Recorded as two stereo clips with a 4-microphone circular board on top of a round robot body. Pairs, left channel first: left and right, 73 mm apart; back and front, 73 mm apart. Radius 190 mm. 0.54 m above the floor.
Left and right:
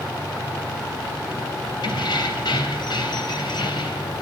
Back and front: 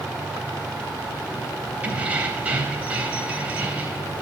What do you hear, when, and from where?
1.8 s keys jangling: 75° left, 3 m